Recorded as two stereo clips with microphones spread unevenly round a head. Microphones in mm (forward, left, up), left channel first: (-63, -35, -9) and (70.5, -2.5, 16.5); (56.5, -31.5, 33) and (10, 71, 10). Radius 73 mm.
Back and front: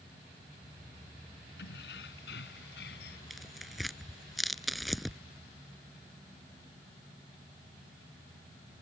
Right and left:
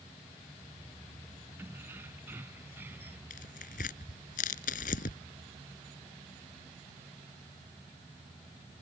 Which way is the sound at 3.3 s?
75° right.